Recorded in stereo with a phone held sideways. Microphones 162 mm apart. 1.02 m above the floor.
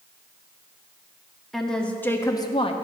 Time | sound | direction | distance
1.5 | a woman speaking | centre (ahead or behind) | 1.6 m